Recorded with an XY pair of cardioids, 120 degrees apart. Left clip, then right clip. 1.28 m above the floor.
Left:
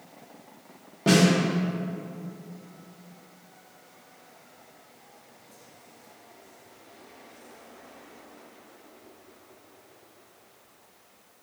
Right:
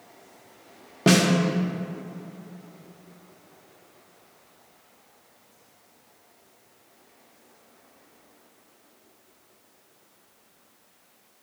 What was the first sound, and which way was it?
A snare drum, 45° right.